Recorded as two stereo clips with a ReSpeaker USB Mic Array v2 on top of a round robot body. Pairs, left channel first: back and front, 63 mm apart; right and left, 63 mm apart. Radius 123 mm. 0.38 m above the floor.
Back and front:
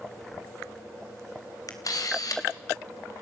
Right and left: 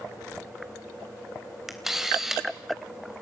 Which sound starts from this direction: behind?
A camera shutter, at 1.7 s.